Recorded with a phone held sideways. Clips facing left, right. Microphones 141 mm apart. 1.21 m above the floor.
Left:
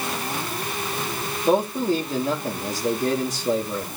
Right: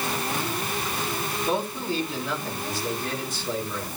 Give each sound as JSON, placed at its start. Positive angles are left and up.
{"t": 1.4, "sound": "a man speaking", "side_deg": 40, "distance_m": 3.0}